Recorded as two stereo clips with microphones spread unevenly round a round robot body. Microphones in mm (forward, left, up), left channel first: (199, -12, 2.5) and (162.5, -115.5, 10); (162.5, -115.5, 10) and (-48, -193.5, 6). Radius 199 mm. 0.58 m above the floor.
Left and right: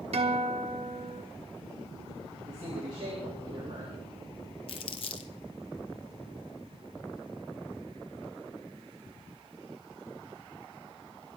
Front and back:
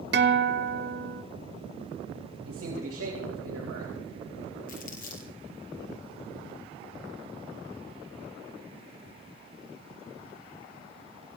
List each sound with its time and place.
0.1 s a guitar: 130° right, 1.2 m
2.4 s a man speaking: 155° right, 3 m
4.7 s crumpling: 75° left, 1.5 m